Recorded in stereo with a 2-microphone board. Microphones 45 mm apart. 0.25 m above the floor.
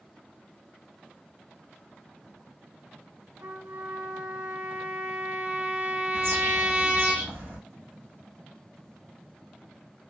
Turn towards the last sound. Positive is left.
turn(degrees=-70)  # may be behind; listen again after turning